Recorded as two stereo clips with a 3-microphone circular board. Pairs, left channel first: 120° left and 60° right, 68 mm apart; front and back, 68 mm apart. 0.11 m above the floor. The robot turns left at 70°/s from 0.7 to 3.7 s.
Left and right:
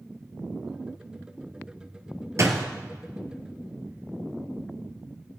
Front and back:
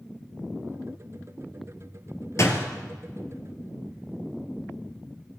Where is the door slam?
30° right, 1.8 m; by 2.7 s 45° right, 1.8 m.